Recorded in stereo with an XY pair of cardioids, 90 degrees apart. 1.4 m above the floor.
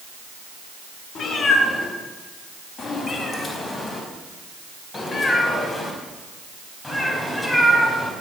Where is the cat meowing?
60° left, 5.5 m; by 8.1 s 10° left, 5 m.